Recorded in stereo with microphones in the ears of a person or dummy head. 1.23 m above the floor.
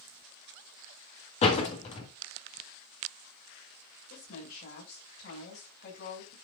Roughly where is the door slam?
Left.